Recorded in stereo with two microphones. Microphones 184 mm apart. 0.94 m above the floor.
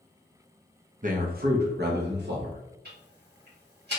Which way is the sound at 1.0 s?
45° right (ahead or behind).